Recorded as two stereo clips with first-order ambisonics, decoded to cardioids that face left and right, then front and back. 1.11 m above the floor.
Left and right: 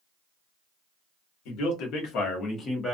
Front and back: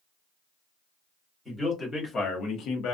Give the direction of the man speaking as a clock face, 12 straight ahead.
9 o'clock.